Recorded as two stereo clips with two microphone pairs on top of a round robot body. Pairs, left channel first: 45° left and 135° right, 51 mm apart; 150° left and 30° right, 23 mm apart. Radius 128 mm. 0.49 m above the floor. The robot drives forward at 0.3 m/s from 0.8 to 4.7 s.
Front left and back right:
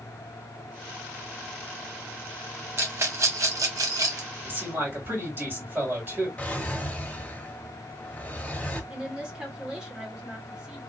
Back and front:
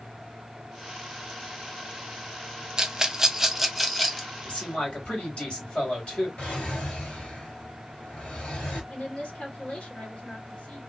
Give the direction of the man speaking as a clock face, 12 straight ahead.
6 o'clock.